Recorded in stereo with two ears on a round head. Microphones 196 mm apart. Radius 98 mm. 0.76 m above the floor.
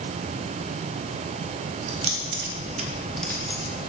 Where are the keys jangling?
70° right (ahead or behind), 1.2 m; by 3.7 s 25° left (ahead or behind), 1.0 m.